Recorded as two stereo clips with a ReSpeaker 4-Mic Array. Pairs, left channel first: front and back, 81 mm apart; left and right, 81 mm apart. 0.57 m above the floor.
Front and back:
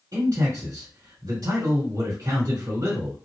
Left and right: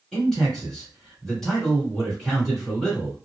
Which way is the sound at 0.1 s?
175° left.